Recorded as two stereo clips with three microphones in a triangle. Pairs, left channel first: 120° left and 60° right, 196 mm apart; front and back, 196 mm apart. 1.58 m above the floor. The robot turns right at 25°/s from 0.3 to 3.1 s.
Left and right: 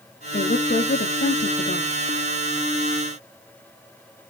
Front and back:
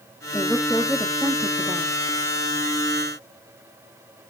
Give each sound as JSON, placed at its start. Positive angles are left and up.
{"t": 0.3, "sound": "a woman speaking", "azimuth_deg": 80, "distance_m": 0.7}